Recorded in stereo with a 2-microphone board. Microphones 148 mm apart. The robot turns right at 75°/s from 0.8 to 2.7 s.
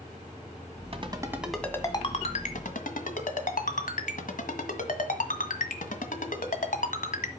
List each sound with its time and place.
0.9 s a ringtone: 45° right (ahead or behind), 1.7 m; by 7.3 s 75° left (ahead or behind), 1.7 m